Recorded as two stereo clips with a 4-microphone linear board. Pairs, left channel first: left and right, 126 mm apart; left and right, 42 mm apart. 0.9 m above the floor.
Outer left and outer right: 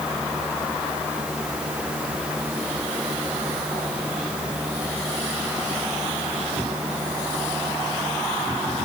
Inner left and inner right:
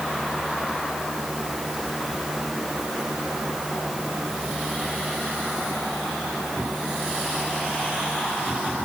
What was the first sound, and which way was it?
Only background noise.